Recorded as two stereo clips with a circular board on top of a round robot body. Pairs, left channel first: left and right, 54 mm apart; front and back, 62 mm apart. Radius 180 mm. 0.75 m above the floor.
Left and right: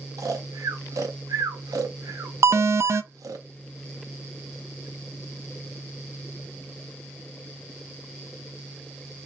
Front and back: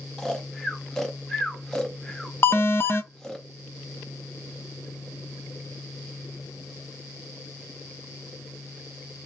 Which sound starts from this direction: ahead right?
An alarm, at 2.4 s.